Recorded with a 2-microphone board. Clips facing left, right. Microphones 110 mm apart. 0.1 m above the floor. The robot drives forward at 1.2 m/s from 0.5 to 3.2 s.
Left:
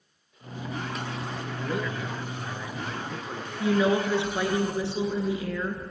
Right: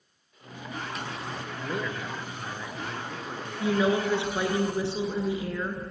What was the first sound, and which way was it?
A man speaking, centre (ahead or behind).